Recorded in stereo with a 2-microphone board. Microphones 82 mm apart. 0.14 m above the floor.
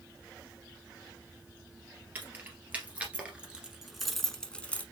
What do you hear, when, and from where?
2.1 s keys jangling: 20° right (ahead or behind), 1.9 m; by 4.8 s 20° left (ahead or behind), 0.9 m